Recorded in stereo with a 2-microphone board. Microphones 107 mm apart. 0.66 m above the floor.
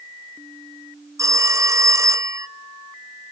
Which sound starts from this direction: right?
A phone ringing, at 1.2 s.